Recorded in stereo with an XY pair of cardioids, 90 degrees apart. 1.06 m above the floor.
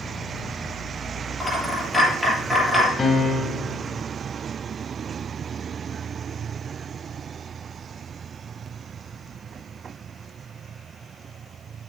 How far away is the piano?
About 2 m.